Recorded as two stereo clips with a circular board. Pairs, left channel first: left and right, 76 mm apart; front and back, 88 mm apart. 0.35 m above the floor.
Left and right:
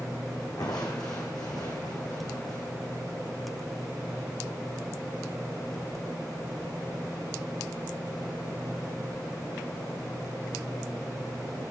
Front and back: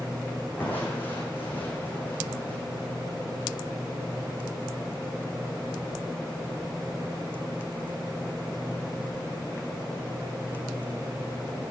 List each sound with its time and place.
0.6 s crushing: 65° left, 4 m